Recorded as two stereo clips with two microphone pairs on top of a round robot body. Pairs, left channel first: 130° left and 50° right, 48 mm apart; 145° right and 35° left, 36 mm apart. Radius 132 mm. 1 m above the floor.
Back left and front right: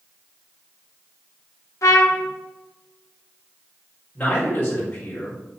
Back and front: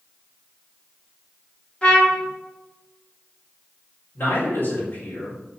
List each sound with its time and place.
1.8 s a trumpet: 145° left, 1.7 m
4.2 s a man speaking: 165° right, 5 m